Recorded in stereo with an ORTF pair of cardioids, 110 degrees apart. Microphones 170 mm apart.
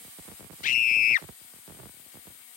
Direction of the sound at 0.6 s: 55° left.